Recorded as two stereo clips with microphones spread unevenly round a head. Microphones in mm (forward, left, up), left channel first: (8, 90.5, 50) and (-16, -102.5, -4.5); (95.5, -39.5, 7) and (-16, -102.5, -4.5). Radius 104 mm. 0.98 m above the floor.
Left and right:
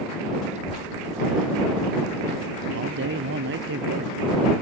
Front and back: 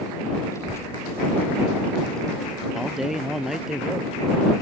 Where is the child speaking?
35° right; by 3.7 s 75° right.